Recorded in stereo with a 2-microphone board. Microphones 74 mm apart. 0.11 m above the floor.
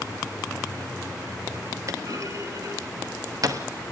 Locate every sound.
1.9 s a clunk: 50° right (ahead or behind), 0.9 m